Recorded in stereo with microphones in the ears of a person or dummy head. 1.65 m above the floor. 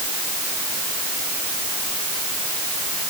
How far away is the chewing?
I don't hear chewing.